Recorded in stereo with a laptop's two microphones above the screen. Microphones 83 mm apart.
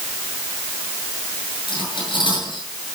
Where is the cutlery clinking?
75° left (ahead or behind), 9.5 m.